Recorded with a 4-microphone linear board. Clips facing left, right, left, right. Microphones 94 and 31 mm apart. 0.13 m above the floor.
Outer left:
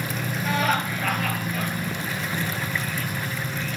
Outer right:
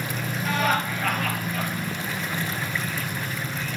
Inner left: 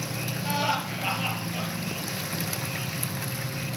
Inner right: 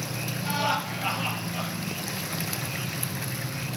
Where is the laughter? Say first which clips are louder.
Even, even; centre (ahead or behind), 3 m.